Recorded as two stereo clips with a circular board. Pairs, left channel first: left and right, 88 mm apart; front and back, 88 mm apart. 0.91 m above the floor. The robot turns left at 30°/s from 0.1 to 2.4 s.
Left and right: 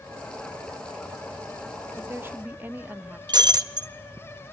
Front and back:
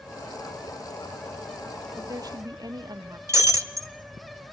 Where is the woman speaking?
140° right, 0.9 m; by 3.2 s 155° right, 0.9 m.